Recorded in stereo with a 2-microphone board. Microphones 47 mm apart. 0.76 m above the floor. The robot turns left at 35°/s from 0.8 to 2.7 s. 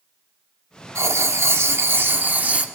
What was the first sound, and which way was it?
Writing, 90° right.